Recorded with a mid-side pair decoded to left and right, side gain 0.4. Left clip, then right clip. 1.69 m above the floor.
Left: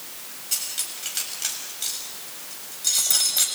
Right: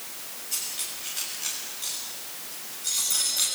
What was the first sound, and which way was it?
Cutlery clinking, 60° left.